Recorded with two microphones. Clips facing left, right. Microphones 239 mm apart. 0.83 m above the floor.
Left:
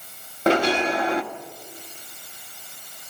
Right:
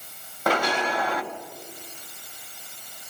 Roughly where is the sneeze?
I don't hear a sneeze.